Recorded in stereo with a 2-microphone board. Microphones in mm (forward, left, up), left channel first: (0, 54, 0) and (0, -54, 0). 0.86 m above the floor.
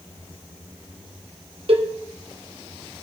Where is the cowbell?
60° right (ahead or behind), 2.5 m.